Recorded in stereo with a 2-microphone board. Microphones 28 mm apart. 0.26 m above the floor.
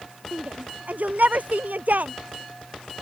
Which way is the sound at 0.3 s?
70° right (ahead or behind).